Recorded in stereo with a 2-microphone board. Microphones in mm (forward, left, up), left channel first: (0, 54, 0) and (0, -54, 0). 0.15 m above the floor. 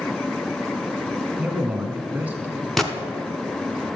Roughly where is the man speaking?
Centre.